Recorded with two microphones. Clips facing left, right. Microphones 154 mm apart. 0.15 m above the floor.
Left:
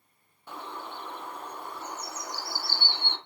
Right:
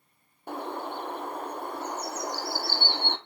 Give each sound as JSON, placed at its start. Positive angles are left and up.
{"t": 0.5, "sound": "a bird", "side_deg": -55, "distance_m": 1.4}